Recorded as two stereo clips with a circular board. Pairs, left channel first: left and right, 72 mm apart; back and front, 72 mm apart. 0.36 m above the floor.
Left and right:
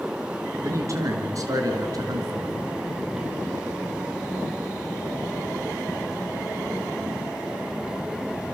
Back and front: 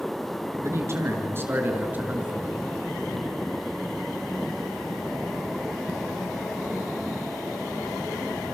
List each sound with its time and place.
0.6 s a man speaking: 50° right, 4.5 m; by 2.7 s 80° right, 3 m